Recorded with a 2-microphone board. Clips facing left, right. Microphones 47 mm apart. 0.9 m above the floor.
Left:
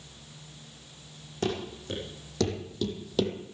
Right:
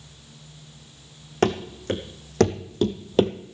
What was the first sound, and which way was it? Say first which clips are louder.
Running footsteps: right 8 dB; 60° right (ahead or behind).